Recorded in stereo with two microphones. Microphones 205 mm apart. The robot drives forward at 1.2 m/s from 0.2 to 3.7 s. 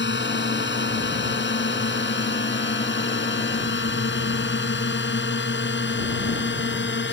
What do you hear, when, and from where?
0.0 s a drone: 60° left (ahead or behind)